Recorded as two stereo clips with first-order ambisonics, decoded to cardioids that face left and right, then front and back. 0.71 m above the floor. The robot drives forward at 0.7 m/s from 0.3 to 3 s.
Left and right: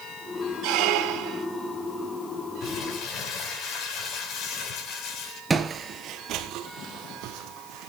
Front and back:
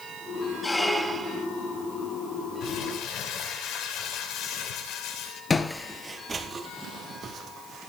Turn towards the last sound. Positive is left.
turn(degrees=-120)